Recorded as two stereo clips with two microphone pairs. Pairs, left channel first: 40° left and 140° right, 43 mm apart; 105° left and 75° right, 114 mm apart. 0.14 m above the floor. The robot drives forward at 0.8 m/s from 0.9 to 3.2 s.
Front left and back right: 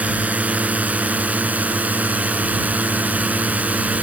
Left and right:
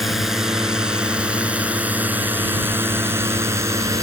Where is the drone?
165° right; by 4.0 s 120° right.